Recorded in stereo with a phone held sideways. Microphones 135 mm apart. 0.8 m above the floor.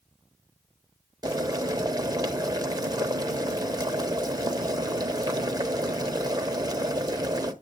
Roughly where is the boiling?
Right.